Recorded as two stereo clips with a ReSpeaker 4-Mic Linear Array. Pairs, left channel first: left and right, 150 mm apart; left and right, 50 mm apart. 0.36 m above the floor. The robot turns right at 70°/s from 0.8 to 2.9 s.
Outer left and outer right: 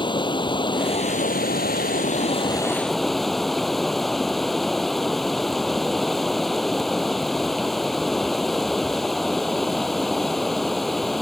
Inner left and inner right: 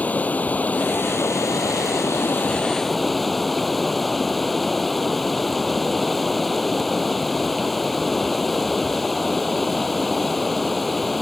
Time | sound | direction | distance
0.0 | running water | 30° left | ?